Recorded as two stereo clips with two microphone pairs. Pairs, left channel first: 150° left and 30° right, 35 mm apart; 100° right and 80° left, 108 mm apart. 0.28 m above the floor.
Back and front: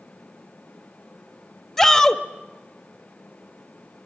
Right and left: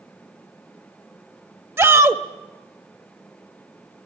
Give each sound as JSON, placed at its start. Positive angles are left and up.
{"t": 1.8, "sound": "a shout", "azimuth_deg": 80, "distance_m": 0.9}